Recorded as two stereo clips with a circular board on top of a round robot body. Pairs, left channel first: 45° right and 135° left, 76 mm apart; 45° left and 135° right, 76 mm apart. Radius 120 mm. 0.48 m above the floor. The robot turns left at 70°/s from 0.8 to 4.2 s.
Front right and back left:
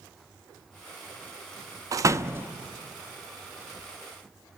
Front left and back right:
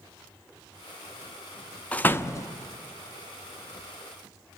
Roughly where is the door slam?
Behind left.